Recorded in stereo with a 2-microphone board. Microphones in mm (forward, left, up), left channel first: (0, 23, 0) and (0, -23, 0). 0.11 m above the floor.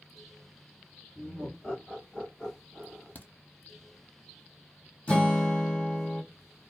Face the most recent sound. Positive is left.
turn(degrees=25)  # may be behind; listen again after turning